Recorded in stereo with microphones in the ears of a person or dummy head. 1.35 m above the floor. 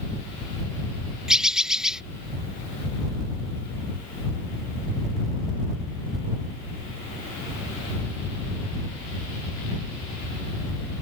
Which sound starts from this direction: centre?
A bird, at 1.3 s.